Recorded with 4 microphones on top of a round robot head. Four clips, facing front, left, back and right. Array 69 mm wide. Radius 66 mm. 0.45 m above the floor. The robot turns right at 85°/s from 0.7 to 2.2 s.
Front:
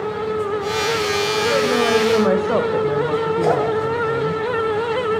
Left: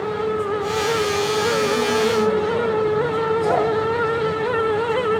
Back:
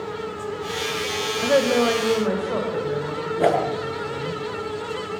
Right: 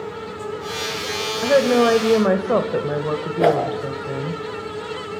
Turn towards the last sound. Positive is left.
turn(degrees=-120)